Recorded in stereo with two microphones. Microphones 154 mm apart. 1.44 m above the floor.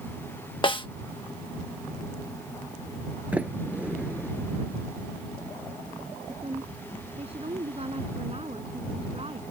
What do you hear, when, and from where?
0.6 s a snare drum: 35° left (ahead or behind)
3.3 s a sliding door: 10° right (ahead or behind)
6.3 s a woman speaking: 40° right (ahead or behind)